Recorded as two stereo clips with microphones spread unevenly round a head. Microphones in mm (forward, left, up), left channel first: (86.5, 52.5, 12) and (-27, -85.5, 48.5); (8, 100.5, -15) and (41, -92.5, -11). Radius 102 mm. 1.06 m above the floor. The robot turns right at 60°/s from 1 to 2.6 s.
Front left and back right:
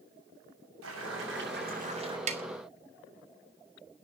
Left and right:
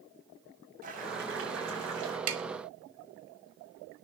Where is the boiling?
135° right, 7 m; by 2.2 s 65° right, 7 m.